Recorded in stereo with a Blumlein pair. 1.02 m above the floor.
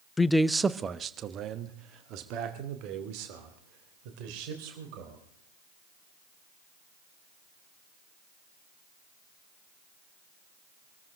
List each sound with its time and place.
0.2 s a man speaking: 15° left, 0.5 m; by 5.2 s 45° right, 4 m